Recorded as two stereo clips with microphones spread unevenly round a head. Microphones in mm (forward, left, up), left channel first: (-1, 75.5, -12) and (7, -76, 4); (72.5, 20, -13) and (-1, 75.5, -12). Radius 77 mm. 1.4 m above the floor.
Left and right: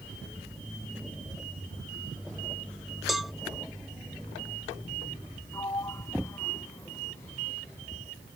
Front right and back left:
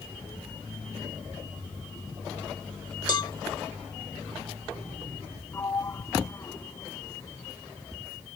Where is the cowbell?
Straight ahead.